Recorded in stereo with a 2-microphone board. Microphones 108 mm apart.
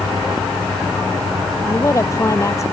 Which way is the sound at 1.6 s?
30° left (ahead or behind).